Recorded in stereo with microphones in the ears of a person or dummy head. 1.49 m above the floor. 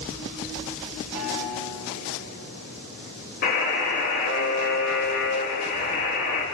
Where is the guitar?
70° left (ahead or behind), 8 m.